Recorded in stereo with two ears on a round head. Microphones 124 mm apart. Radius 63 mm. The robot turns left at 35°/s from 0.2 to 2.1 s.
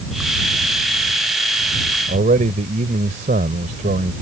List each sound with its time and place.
2.1 s a man speaking: 65° right (ahead or behind)